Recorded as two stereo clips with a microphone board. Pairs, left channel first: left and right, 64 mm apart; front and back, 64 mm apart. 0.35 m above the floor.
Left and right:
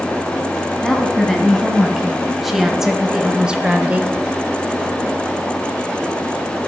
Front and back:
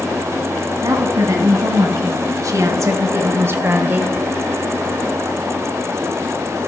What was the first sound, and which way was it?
A woman speaking, 175° left.